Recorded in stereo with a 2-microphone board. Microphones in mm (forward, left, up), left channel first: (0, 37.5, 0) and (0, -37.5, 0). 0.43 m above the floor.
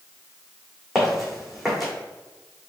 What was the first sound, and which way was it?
Footsteps, centre (ahead or behind).